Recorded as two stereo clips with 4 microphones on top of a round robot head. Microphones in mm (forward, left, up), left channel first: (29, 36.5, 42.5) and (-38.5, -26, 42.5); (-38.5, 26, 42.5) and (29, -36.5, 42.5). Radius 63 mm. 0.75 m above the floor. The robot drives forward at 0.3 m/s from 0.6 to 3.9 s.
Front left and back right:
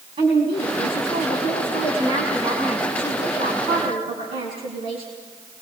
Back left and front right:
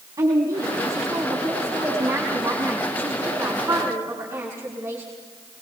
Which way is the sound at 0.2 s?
105° right.